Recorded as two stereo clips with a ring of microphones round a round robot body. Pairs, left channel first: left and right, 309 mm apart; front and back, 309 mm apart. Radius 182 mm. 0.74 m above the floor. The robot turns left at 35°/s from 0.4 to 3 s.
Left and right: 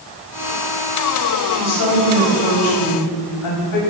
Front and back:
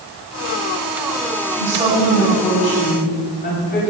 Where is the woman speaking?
115° left, 4.5 m; by 3.8 s 65° left, 4.5 m.